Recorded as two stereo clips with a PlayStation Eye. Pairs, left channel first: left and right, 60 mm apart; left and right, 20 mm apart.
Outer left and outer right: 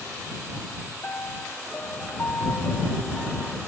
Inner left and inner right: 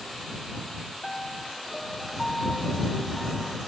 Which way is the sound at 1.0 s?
40° left (ahead or behind).